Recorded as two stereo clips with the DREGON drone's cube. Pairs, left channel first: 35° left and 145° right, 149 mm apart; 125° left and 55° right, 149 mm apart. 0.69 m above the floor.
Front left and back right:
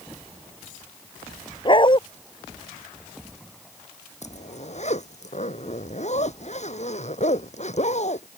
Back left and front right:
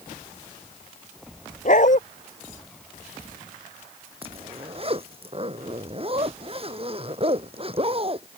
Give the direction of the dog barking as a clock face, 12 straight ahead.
9 o'clock.